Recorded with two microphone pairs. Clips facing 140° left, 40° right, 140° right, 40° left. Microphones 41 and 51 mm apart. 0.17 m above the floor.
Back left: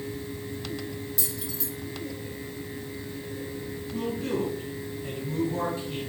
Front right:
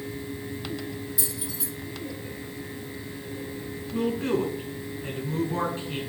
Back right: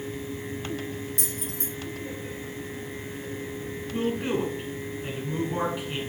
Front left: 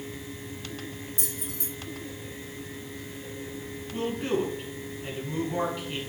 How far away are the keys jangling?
About 2.5 m.